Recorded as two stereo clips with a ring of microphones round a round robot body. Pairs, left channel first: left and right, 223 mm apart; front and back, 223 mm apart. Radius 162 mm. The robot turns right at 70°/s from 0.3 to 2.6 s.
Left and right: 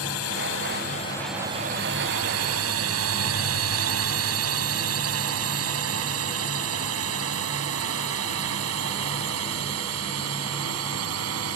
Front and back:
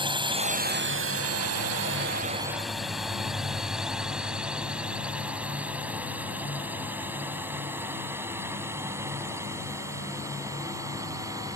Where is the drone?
110° left; by 11.6 s 100° right.